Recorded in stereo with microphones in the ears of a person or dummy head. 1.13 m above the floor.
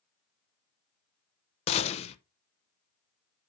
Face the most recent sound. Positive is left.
turn(degrees=30)  # may be behind; listen again after turning